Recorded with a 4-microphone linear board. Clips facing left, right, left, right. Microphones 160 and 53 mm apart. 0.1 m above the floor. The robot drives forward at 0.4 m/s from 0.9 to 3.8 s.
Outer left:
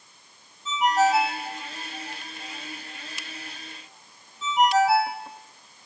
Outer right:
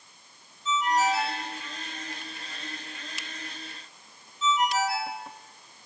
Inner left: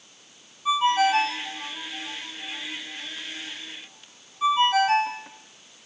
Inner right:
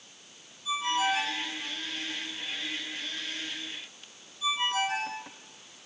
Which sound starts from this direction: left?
A ringtone, at 0.7 s.